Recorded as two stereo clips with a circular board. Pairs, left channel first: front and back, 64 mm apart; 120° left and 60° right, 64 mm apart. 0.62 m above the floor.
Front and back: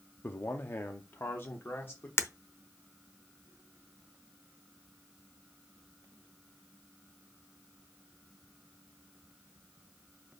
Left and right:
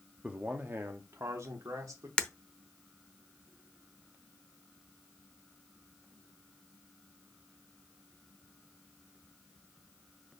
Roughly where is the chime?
No chime in this recording.